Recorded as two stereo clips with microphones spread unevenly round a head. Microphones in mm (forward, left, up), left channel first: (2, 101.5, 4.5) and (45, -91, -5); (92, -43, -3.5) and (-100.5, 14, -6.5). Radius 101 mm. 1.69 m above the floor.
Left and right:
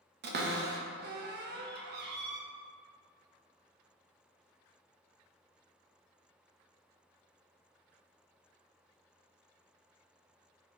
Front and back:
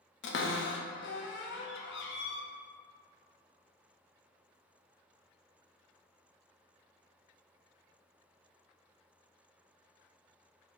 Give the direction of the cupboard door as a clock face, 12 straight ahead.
1 o'clock.